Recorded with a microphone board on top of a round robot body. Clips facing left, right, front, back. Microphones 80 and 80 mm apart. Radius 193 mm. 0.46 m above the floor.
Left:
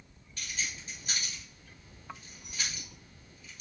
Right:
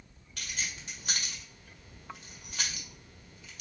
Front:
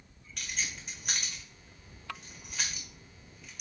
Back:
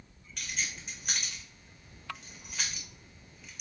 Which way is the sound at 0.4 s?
90° right.